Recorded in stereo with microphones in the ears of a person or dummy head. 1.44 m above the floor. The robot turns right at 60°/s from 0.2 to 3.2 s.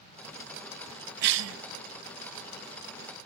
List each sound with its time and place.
1.2 s a cough: 55° right (ahead or behind), 0.9 m; by 1.6 s 75° right (ahead or behind), 0.9 m